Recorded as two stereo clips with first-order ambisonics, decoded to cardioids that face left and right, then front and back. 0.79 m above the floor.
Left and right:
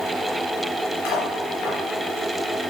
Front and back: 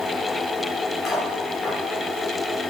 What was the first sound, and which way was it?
Cutlery clinking, 70° left.